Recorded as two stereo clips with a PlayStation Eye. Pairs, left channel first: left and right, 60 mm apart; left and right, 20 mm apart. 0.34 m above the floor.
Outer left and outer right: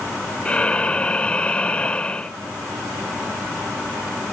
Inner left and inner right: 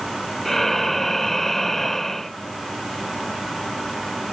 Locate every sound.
0.5 s breathing: 15° left (ahead or behind)